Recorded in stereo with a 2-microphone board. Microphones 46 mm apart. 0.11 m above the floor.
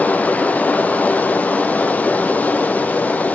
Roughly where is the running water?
Left.